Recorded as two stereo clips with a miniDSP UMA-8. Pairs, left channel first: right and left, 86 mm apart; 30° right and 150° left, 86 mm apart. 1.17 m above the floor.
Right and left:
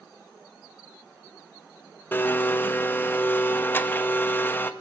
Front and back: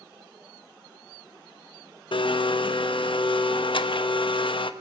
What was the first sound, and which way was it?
A blender, 25° right.